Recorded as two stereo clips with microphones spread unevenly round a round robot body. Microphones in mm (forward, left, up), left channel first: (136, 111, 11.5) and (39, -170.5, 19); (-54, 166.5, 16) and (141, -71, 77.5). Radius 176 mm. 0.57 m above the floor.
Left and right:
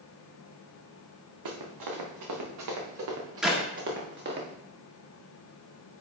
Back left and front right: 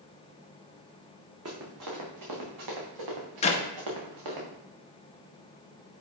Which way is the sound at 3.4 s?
160° left.